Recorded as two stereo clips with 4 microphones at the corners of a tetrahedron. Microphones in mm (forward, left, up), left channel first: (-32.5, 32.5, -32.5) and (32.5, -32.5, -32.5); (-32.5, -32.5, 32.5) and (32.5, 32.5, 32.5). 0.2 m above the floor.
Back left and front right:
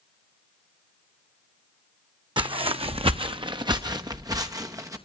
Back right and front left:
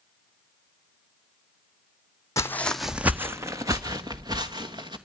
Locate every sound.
2.4 s footsteps: 80° right, 0.7 m; by 5.0 s 10° left, 2.5 m